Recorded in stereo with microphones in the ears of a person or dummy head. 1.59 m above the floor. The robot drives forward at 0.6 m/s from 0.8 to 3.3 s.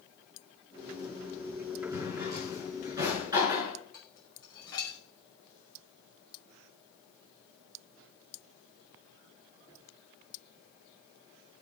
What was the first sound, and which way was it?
A drawer, 15° right (ahead or behind).